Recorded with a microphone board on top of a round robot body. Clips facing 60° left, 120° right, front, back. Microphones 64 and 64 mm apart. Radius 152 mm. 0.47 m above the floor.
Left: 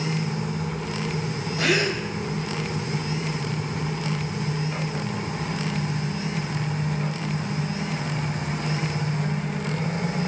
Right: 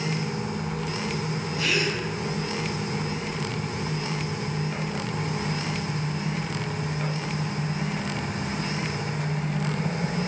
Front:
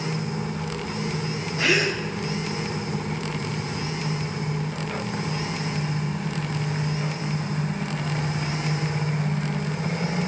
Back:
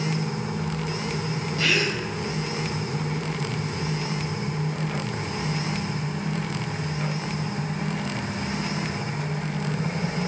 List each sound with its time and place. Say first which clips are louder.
1.6 s a gasp: left 4 dB, front 2 dB; 50° left, 3 m